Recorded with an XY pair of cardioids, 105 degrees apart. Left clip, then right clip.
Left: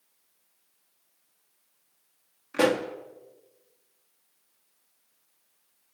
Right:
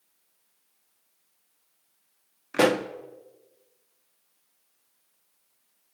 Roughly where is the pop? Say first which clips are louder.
Right 2 dB; ahead right.